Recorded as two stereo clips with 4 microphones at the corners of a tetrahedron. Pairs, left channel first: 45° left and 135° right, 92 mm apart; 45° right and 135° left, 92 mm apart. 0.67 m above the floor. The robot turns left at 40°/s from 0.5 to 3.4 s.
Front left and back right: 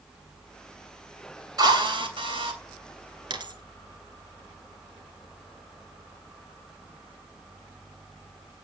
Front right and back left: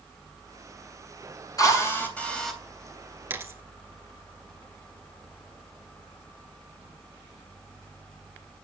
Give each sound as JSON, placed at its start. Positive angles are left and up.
{"t": 1.6, "sound": "a drill", "azimuth_deg": -95, "distance_m": 3.0}
{"t": 3.3, "sound": "a dropped coin", "azimuth_deg": -160, "distance_m": 1.4}